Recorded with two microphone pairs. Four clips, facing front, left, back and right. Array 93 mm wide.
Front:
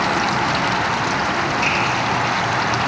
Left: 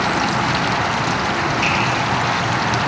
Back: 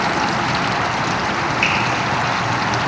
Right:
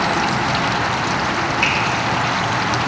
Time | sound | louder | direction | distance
1.6 | a finger snap | even, back 1 dB | 145° right | 1.2 m